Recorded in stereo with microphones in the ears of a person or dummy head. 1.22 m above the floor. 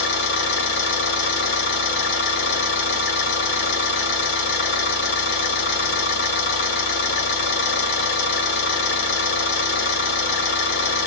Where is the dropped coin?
I don't hear a dropped coin.